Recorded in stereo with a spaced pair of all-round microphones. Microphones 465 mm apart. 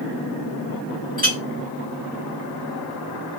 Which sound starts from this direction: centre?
A clink, at 1.2 s.